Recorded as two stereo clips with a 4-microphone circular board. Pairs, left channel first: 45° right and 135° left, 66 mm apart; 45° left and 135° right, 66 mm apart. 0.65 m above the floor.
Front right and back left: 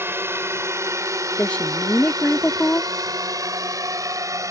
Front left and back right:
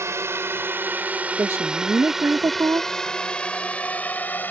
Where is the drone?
175° right; by 4.5 s 105° left.